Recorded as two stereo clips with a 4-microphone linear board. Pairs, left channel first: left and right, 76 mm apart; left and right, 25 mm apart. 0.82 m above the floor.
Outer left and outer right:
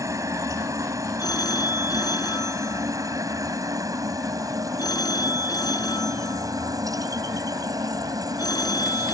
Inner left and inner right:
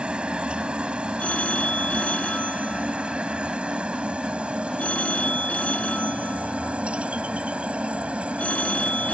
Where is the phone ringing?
60° left (ahead or behind).